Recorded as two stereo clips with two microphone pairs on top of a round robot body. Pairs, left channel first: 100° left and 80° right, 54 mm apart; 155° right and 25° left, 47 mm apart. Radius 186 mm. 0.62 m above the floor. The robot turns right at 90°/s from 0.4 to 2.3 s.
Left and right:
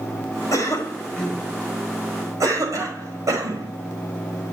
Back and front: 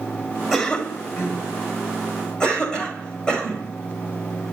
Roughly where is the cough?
Left.